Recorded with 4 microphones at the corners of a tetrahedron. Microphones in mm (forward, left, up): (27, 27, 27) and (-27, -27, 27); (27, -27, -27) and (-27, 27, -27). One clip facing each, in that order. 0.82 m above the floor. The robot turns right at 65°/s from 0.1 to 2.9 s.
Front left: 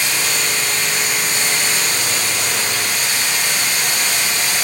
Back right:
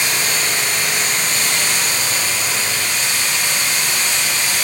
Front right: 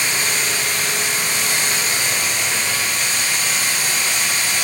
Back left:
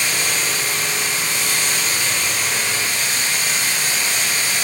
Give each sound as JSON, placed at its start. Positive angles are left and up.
{"t": 0.0, "sound": "running water", "azimuth_deg": -100, "distance_m": 2.5}